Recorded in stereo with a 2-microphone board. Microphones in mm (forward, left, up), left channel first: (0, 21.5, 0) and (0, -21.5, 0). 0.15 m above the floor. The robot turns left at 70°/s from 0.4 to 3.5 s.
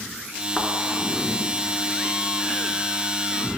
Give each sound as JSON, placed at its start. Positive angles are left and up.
{"t": 0.6, "sound": "a thud", "side_deg": 20, "distance_m": 0.8}